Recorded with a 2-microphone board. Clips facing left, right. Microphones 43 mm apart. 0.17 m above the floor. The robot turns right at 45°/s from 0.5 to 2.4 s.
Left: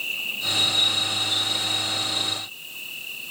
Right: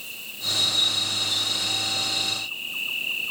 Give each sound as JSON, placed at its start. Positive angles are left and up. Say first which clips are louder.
{"t": 0.0, "sound": "an insect", "louder": "left 7 dB", "azimuth_deg": 130}